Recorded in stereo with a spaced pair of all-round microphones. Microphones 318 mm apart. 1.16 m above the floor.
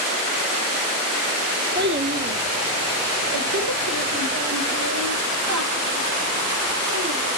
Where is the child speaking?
30° right (ahead or behind), 0.6 m; by 7.3 s 50° right (ahead or behind), 3 m.